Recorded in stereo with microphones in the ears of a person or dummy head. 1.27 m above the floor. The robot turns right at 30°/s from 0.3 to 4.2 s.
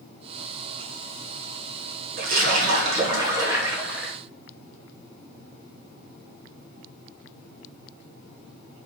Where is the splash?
65° right, 1.0 m; by 4.1 s 5° right, 1.0 m.